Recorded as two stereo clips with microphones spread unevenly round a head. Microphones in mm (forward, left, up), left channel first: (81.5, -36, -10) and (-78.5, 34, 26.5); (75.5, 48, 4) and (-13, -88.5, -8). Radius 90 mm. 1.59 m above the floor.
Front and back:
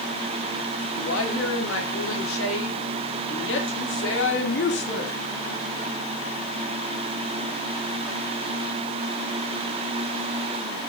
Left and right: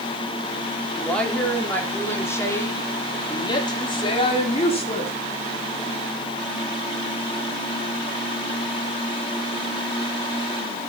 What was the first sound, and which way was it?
A woman speaking, 30° right.